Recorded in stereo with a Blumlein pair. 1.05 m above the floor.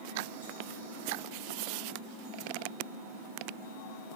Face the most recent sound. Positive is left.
turn(degrees=-50)